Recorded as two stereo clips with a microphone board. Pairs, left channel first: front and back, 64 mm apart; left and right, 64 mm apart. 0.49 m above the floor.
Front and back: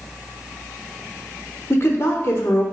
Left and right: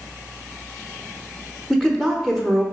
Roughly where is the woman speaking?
Ahead.